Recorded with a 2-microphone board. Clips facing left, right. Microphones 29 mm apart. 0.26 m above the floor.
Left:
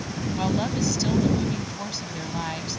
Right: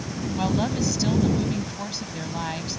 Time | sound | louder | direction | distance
0.4 | a woman speaking | right 1 dB | centre (ahead or behind) | ?